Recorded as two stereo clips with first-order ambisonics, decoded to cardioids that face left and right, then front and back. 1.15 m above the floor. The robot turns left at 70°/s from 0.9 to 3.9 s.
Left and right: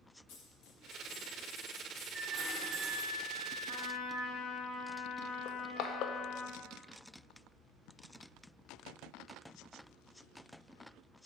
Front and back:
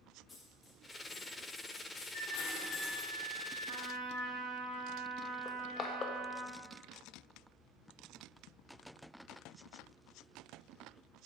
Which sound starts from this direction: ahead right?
A flute, at 2.1 s.